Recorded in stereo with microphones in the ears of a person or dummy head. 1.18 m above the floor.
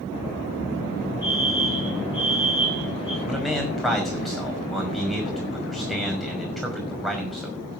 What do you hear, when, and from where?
1.2 s a fire alarm: 15° right (ahead or behind), 8.5 m
3.2 s a man speaking: 5° right (ahead or behind), 5.5 m